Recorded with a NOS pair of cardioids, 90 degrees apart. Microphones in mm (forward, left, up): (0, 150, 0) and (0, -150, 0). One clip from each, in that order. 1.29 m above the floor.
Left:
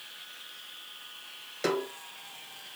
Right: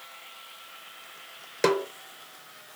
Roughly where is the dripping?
I don't hear dripping.